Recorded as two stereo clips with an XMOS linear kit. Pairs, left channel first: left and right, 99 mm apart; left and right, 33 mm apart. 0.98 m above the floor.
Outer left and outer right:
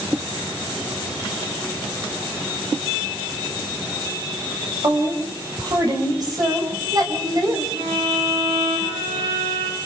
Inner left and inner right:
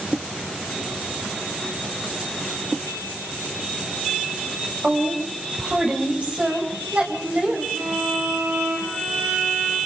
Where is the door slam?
I don't hear a door slam.